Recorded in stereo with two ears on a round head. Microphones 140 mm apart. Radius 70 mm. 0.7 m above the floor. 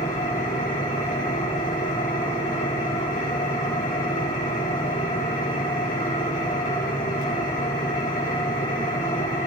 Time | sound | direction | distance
0.0 | an engine running | 55° left (ahead or behind) | 8 m